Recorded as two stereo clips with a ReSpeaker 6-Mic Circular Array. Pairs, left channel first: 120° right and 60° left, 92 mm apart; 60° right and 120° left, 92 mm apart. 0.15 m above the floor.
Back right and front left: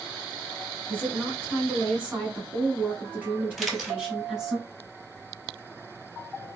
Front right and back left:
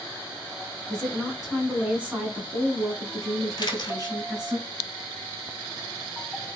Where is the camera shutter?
30° right, 0.9 m.